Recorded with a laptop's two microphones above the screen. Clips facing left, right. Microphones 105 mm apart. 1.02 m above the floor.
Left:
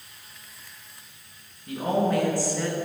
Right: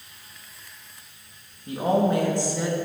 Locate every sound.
1.7 s a woman speaking: 30° right (ahead or behind), 1.8 m; by 2.8 s 10° right (ahead or behind), 0.9 m